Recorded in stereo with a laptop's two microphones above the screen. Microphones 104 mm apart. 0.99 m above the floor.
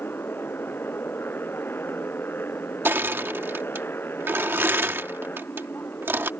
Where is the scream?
No scream in this recording.